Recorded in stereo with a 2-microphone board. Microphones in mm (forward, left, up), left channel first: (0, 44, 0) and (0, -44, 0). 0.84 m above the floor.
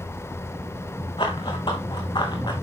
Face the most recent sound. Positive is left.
turn(degrees=60)  # may be behind; listen again after turning